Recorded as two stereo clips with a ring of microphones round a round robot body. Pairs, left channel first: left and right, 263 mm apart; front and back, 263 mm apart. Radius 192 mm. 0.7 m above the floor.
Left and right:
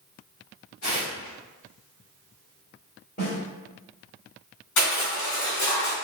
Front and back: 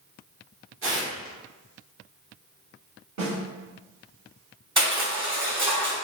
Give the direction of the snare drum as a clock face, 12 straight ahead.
7 o'clock.